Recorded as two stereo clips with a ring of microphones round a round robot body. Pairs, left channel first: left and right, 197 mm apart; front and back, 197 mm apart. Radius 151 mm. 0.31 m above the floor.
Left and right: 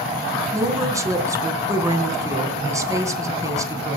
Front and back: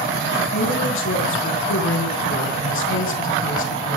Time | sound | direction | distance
0.5 | a woman speaking | 15° right | 3.5 m